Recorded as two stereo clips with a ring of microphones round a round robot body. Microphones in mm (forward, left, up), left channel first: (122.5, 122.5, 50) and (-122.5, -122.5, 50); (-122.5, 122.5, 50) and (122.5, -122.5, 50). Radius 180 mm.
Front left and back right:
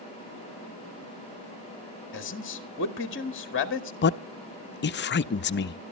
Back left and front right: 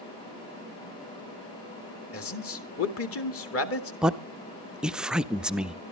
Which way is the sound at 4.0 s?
40° left.